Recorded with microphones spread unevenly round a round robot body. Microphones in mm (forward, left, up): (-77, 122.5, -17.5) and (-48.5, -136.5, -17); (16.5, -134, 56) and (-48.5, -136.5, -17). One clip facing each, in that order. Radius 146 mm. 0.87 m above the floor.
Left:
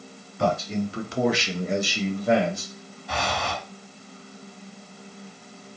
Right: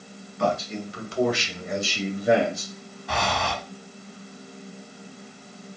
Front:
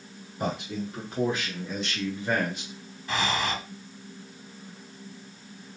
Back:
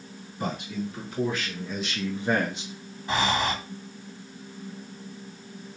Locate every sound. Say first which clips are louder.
0.4 s a man speaking: left 2 dB, even; 70° left, 1.3 m; by 2.7 s 150° right, 1.2 m
3.1 s breathing: right 1 dB, back 3 dB; 100° right, 1.6 m